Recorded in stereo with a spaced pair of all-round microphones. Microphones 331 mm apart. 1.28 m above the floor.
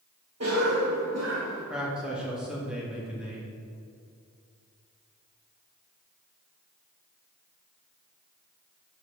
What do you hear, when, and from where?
0.4 s a cough: 55° right (ahead or behind), 1.1 m
1.7 s a man speaking: 5° right (ahead or behind), 1.9 m